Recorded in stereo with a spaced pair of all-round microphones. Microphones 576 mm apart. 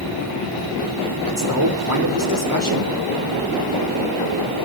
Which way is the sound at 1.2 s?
35° right (ahead or behind).